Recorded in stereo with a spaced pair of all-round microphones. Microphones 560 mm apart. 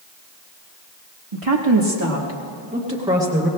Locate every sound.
1.3 s a woman speaking: 70° right (ahead or behind), 1.3 m; by 3.5 s 5° right (ahead or behind), 3 m